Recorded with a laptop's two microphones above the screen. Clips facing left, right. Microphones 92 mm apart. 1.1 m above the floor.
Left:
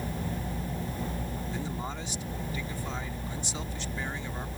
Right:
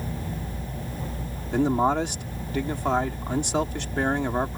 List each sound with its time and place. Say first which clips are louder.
1.5 s a man speaking: right 20 dB; 65° right (ahead or behind)